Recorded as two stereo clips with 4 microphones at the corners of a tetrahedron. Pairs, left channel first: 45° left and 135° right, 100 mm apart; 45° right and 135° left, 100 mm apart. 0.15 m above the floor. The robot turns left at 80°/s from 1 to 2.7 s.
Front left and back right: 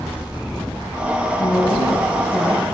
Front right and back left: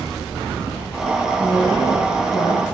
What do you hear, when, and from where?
1.4 s a woman speaking: 60° left, 3.5 m; by 2.6 s 40° right, 3.5 m